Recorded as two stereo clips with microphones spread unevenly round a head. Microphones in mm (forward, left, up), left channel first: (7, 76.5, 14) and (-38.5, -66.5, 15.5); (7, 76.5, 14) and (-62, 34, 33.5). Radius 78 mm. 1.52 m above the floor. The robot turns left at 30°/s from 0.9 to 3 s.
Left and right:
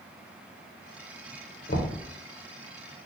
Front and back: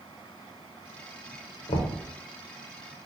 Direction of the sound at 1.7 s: 40° left.